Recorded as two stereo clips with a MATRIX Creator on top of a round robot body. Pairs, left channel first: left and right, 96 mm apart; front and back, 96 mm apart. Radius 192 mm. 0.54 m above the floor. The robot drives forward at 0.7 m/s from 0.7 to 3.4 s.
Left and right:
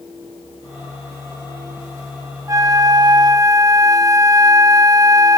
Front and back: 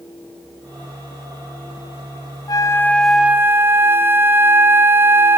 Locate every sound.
2.5 s a flute: 40° right, 0.8 m; by 5.4 s 120° right, 0.7 m